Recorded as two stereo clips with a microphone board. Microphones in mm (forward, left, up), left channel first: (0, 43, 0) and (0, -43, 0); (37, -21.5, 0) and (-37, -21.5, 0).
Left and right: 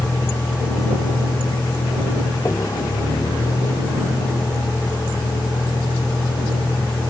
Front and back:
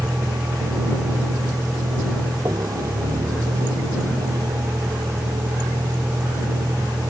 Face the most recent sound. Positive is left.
turn(degrees=145)